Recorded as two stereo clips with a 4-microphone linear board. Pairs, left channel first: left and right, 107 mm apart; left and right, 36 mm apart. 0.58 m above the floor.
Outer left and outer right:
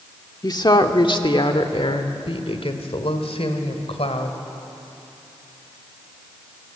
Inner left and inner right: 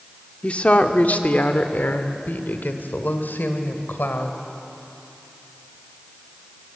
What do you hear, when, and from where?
0.4 s a woman speaking: 40° left (ahead or behind), 1.6 m; by 4.4 s 70° left (ahead or behind), 3 m